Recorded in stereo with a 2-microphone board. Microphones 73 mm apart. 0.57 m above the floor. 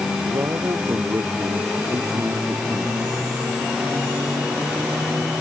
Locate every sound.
0.2 s a man speaking: 45° right (ahead or behind); by 3.3 s 40° right (ahead or behind)